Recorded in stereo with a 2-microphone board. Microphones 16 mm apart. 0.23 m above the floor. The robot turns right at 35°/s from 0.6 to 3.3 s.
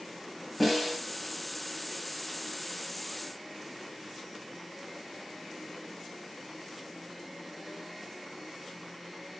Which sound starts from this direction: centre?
A snare drum, at 0.6 s.